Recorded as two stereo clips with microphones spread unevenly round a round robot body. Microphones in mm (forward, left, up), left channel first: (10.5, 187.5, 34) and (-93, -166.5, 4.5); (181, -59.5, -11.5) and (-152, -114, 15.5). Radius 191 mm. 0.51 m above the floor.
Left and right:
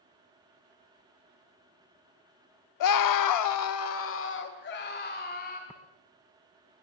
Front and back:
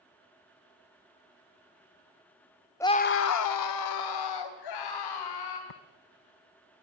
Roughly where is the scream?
Left.